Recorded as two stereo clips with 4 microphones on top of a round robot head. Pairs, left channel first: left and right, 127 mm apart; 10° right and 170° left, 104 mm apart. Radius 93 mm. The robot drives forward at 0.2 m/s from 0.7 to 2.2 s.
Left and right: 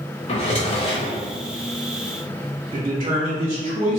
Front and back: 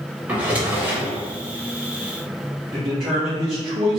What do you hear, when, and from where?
0.3 s a drawer: 100° left, 0.7 m; by 1.2 s 115° left, 0.7 m
2.7 s a man speaking: 135° right, 1.3 m